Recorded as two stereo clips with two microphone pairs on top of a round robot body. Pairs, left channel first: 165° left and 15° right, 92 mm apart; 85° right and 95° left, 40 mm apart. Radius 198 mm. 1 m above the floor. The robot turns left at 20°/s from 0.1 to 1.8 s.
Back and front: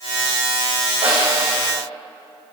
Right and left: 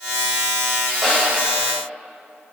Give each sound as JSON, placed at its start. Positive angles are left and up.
{"t": 1.0, "sound": "a snare drum", "azimuth_deg": 10, "distance_m": 3.5}